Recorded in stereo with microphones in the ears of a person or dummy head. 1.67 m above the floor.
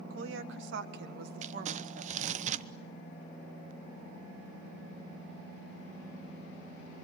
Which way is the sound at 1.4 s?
35° right (ahead or behind).